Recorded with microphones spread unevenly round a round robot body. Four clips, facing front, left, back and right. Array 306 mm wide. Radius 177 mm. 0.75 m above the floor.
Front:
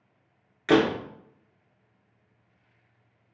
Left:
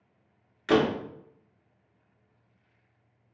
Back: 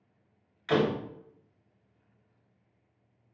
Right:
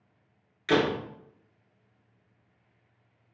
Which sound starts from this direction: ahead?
A door slam, at 0.7 s.